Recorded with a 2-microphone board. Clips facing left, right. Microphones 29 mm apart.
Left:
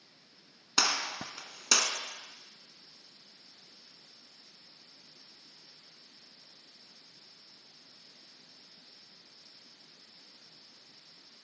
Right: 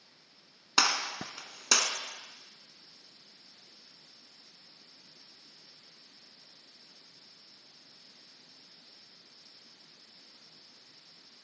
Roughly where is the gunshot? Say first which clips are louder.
Right 2 dB; centre.